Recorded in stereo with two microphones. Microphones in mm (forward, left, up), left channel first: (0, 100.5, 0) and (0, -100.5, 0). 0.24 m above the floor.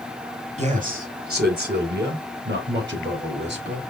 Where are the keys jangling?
No keys jangling in this recording.